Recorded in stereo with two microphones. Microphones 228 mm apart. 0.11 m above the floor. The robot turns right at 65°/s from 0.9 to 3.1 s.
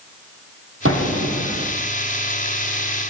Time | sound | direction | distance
0.8 | an explosion | 110° right | 2.5 m